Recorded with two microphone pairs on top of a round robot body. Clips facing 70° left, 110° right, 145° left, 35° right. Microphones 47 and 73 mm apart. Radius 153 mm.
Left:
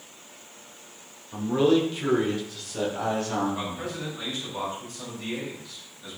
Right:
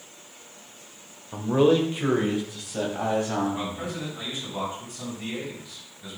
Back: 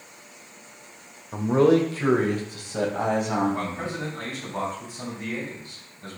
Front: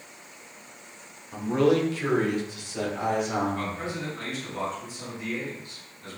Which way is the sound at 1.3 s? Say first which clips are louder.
Right 1 dB, back 4 dB; 165° right.